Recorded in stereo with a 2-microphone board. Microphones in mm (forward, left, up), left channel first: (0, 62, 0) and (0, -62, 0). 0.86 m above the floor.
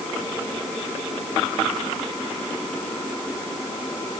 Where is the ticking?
No ticking in this recording.